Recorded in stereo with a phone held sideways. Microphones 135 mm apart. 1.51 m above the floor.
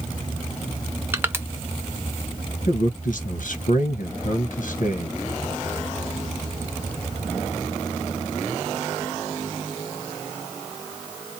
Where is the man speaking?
75° left (ahead or behind), 1.1 m.